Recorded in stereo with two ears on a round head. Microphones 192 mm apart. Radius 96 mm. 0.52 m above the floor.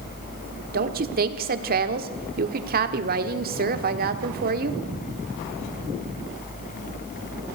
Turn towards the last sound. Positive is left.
turn(degrees=-45)  # may be behind; listen again after turning